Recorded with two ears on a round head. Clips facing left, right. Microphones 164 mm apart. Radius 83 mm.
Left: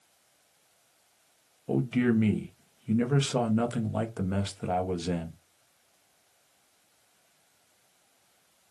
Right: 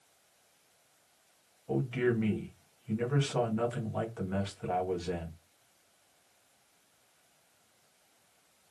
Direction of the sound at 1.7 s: 50° left (ahead or behind).